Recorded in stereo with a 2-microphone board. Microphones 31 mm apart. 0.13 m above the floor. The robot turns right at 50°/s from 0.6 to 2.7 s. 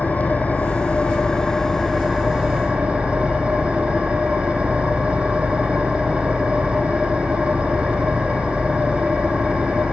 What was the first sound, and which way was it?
An engine running, 115° left.